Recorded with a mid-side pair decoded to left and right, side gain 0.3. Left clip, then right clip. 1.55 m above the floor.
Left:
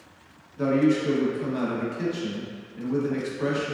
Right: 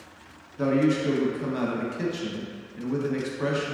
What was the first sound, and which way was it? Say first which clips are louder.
A man speaking: left 1 dB; 30° right.